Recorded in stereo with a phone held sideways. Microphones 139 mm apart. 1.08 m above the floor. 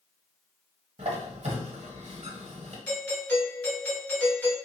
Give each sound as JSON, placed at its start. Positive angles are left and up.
{"t": 1.0, "sound": "a squeak", "side_deg": -50, "distance_m": 1.1}
{"t": 2.9, "sound": "a doorbell", "side_deg": 10, "distance_m": 1.9}